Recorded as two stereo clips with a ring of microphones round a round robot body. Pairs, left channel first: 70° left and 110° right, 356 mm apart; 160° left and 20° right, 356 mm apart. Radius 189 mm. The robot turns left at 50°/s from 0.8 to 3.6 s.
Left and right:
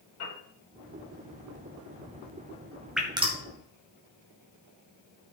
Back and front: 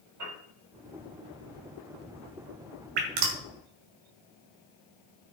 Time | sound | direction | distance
0.2 | a piano | 20° left | 6 m
3.0 | dripping | 25° right | 1.9 m